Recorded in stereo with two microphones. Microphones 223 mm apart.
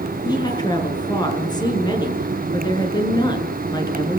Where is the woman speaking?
20° left (ahead or behind), 7 m.